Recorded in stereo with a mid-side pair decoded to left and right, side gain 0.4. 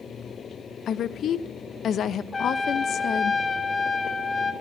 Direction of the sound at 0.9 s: 65° left.